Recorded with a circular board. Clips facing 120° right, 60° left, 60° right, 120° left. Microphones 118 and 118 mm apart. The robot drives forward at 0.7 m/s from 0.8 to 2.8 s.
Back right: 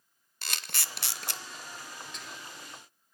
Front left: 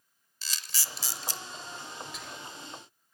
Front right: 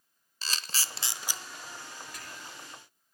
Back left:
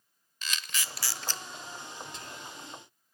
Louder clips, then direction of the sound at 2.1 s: Front left 2 dB, back left 2 dB; 140° left.